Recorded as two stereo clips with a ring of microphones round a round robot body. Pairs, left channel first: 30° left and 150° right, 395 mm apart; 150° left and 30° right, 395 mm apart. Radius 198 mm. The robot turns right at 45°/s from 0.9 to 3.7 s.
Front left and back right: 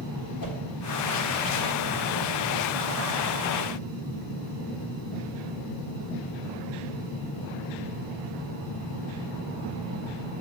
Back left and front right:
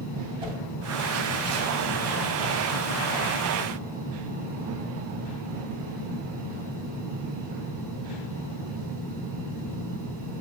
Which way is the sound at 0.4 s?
45° left.